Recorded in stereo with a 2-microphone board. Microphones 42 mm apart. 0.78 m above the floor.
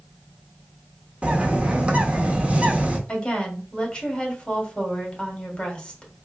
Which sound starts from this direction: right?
A bird, at 1.2 s.